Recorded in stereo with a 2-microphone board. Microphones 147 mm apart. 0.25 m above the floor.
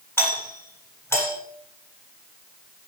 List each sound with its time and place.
0.2 s a doorbell: 15° left (ahead or behind), 8 m